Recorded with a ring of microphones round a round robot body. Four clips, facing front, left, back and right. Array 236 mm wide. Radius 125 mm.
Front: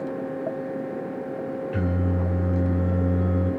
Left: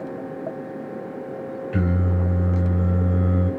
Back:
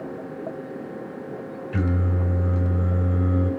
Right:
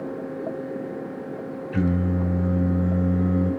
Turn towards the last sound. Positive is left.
turn(degrees=120)